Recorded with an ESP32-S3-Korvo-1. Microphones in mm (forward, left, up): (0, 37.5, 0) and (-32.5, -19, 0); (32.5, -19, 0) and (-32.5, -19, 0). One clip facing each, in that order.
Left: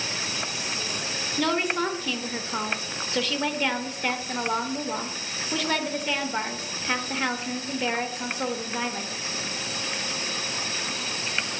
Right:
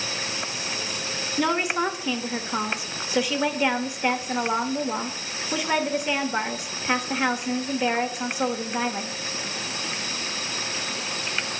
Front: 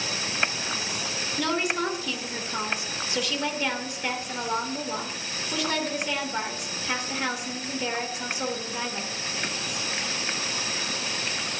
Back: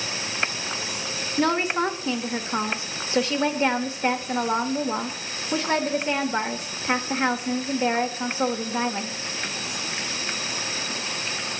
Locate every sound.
1.4 s a woman speaking: 175° left, 1.1 m